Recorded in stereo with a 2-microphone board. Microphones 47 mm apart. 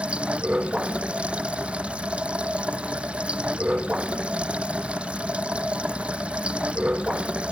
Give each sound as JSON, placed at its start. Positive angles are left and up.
{"t": 0.0, "sound": "running water", "side_deg": -25}